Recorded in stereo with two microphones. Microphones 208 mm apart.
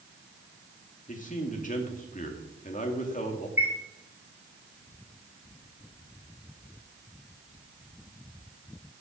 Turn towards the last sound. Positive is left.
turn(degrees=-10)  # may be behind; listen again after turning